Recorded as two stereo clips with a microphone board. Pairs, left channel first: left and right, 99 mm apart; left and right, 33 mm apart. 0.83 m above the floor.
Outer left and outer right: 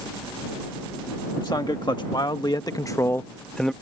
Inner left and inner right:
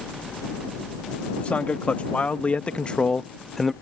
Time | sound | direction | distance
1.4 | a man speaking | 45° left (ahead or behind) | ?